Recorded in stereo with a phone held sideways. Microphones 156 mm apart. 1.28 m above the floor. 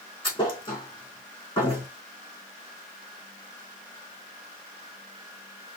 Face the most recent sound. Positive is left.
turn(degrees=35)  # may be behind; listen again after turning